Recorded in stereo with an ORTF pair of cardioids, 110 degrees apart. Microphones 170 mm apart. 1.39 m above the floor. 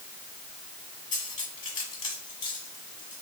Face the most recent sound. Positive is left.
turn(degrees=50)